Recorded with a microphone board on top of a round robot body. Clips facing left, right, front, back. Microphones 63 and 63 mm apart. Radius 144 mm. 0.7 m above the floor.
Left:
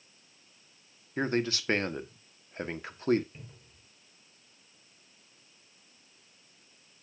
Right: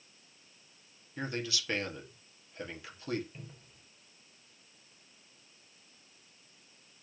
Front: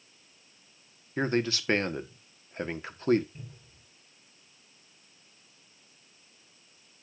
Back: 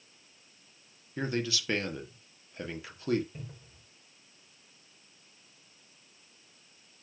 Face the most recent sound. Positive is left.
turn(degrees=170)